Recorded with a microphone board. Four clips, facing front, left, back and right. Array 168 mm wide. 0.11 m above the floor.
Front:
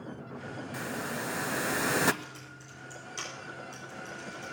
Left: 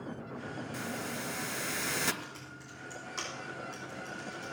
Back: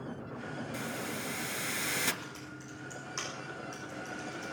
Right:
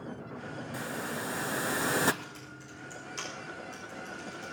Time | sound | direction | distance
0.7 | a hiss | 40° right | 0.6 m
2.2 | typing on a keyboard | 140° left | 6.5 m